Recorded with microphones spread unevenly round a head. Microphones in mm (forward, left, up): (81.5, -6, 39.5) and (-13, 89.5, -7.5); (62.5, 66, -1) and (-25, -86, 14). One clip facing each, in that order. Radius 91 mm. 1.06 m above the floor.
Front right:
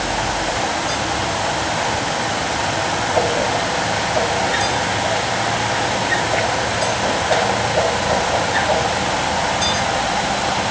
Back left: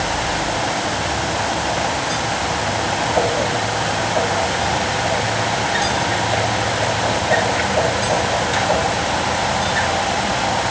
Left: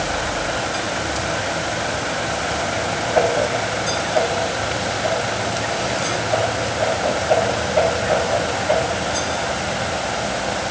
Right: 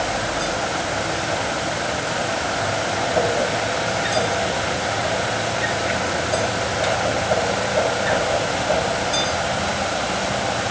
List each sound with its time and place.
Only background noise.